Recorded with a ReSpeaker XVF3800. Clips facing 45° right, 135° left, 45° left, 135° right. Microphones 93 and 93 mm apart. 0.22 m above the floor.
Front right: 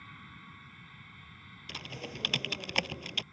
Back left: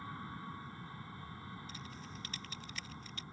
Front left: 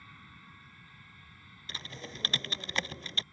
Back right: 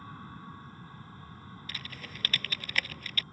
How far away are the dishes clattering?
I don't hear dishes clattering.